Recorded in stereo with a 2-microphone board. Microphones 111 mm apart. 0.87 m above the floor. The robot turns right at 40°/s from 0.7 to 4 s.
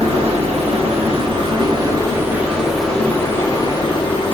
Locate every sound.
0.0 s running water: 85° right, 1.1 m; by 4.3 s 50° left, 1.1 m